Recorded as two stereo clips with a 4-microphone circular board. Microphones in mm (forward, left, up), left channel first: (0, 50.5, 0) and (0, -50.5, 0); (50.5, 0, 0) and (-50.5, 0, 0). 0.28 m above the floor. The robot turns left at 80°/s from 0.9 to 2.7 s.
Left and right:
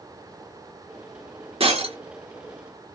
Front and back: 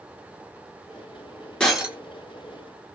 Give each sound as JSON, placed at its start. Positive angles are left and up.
{"t": 1.6, "sound": "breaking glass", "azimuth_deg": -80, "distance_m": 1.2}